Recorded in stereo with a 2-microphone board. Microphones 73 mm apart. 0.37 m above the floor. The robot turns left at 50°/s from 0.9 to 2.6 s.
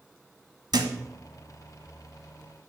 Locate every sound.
0.7 s a thud: 80° right, 0.8 m